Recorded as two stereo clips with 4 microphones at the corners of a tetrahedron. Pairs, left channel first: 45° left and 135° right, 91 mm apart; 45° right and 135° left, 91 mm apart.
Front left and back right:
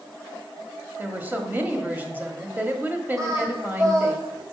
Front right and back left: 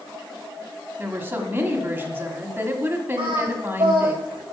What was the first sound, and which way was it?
A woman speaking, 175° left.